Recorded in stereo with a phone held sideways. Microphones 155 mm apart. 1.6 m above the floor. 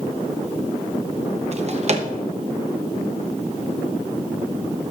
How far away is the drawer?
About 1.0 m.